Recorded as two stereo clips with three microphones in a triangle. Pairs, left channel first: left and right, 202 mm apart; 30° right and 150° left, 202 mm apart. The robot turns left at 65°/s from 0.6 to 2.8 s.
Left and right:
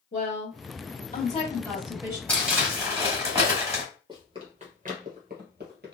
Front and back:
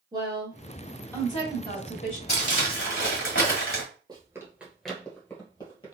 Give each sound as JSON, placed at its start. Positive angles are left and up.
{"t": 0.1, "sound": "a woman speaking", "azimuth_deg": 80, "distance_m": 1.8}
{"t": 2.3, "sound": "crumpling", "azimuth_deg": 10, "distance_m": 1.9}
{"t": 4.1, "sound": "running footsteps", "azimuth_deg": -150, "distance_m": 1.4}